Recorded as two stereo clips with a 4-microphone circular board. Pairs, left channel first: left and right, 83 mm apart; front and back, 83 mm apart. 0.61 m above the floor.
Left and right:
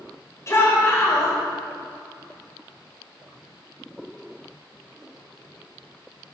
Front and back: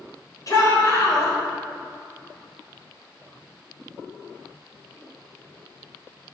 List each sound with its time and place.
0.5 s a shout: 40° left, 3 m